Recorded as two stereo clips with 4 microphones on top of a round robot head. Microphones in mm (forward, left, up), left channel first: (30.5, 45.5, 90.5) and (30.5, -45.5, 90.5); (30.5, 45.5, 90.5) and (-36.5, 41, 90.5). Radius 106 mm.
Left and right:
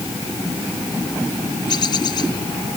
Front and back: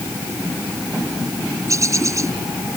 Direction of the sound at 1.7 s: 140° left.